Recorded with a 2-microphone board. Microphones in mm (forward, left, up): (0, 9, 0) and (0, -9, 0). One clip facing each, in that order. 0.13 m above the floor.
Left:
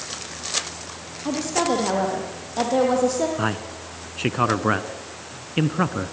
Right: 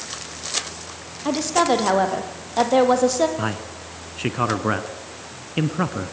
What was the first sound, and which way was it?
A woman speaking, 30° right (ahead or behind).